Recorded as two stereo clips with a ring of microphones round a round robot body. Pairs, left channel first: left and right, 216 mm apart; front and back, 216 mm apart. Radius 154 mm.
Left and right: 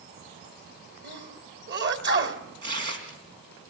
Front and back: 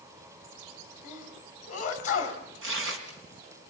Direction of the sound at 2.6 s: 140° right.